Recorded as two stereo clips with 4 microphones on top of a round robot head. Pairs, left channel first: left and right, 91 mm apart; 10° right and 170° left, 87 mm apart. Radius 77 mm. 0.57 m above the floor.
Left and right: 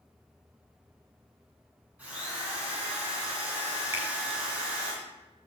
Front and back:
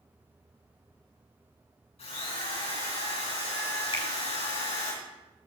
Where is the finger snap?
25° right, 2 m.